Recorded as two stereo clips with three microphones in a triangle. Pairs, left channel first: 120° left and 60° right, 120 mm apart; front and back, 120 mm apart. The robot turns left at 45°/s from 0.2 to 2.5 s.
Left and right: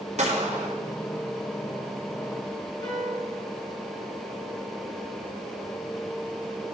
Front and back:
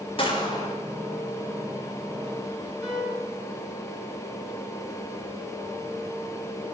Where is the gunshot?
40° right, 1.1 m; by 0.8 s 65° right, 1.1 m.